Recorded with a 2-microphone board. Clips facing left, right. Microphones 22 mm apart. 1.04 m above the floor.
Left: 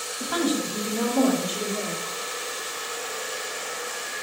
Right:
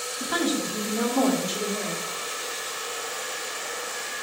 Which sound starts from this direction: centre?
A woman speaking, at 0.2 s.